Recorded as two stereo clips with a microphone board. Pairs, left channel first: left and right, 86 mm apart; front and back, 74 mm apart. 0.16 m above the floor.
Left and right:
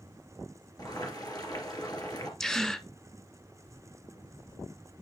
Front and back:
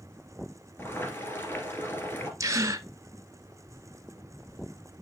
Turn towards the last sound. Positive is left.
turn(degrees=170)